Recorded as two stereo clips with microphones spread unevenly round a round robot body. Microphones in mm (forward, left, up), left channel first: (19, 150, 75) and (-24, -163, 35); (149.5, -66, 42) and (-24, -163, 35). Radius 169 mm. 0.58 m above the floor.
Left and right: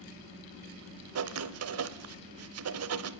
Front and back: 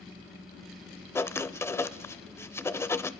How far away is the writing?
About 0.8 m.